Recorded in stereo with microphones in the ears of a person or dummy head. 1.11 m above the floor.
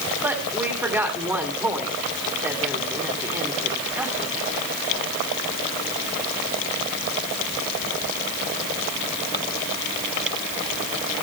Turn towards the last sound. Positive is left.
turn(degrees=-20)  # may be behind; listen again after turning